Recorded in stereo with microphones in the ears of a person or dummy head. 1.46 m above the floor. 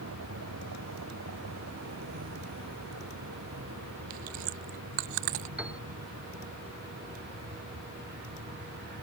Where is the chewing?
45° right (ahead or behind).